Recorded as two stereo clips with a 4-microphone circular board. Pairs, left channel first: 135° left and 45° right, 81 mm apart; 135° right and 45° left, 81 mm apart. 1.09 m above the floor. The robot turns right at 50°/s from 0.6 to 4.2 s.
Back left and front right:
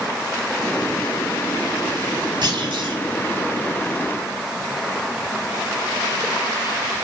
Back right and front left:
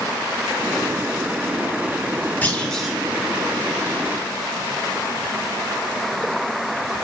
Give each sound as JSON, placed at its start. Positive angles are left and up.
{"t": 2.4, "sound": "a clunk", "azimuth_deg": -65, "distance_m": 3.0}